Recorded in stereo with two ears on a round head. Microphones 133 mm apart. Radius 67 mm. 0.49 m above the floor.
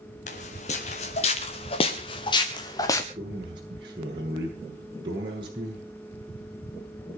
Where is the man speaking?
30° right (ahead or behind), 8 m.